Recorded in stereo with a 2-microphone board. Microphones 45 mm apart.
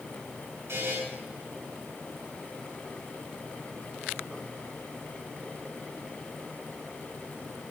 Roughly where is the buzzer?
Right.